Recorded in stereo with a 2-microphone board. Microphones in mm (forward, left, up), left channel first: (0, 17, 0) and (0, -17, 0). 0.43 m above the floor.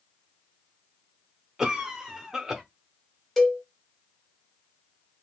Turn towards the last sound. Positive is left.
turn(degrees=5)  # may be behind; listen again after turning